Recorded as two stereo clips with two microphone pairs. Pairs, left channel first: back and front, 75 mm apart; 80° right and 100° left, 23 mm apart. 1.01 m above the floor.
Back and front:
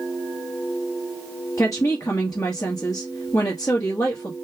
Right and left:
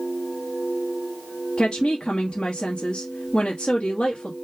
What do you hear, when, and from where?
1.6 s a woman speaking: 135° right, 1.1 m